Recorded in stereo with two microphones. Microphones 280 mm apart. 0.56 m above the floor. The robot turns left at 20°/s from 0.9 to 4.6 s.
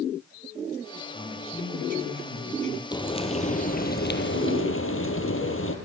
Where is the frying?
165° left, 2.5 m; by 5.8 s 130° left, 2.5 m.